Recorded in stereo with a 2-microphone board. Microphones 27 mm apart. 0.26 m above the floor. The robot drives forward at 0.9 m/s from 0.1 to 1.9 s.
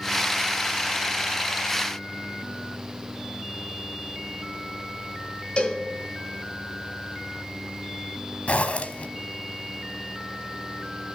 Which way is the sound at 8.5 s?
55° left (ahead or behind).